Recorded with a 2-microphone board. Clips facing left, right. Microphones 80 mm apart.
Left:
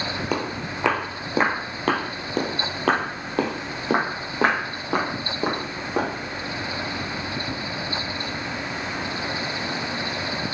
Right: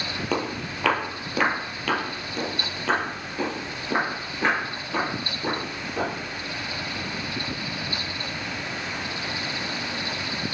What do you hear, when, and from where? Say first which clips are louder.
0.3 s footsteps: right 2 dB; 10° left (ahead or behind), 1.8 m; by 6.1 s 70° left (ahead or behind), 3.5 m